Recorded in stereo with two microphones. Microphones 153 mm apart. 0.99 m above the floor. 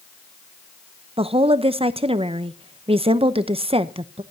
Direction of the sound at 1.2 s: 40° right (ahead or behind).